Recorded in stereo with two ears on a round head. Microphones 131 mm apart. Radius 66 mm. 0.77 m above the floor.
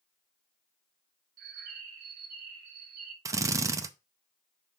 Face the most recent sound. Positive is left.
turn(degrees=-20)  # may be behind; listen again after turning